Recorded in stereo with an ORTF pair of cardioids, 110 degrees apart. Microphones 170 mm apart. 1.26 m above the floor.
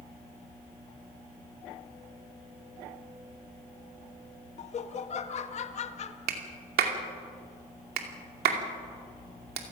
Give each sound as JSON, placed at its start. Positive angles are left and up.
{"t": 4.6, "sound": "laughter", "azimuth_deg": 40, "distance_m": 1.7}
{"t": 6.3, "sound": "a clap", "azimuth_deg": -65, "distance_m": 2.5}